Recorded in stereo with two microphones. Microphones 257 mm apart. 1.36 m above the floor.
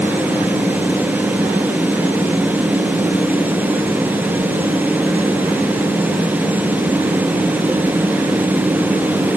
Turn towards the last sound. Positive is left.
No sound to turn to.